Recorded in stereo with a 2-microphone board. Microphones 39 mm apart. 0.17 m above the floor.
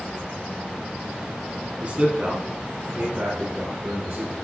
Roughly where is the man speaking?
Right.